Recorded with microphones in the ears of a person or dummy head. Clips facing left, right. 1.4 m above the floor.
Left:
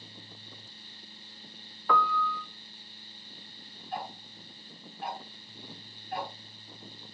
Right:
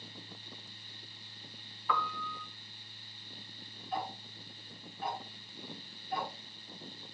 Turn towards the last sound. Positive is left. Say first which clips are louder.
# even
turn(degrees=-85)